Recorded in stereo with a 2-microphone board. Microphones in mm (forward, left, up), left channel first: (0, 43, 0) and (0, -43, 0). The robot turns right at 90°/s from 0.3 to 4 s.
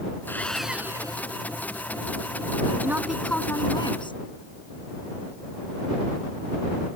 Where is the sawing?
155° left; by 1.3 s 120° right.